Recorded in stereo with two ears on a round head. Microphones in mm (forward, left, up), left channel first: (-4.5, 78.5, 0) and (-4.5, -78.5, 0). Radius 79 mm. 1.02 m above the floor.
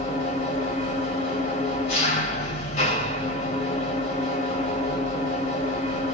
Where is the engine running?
40° left (ahead or behind), 1.8 m.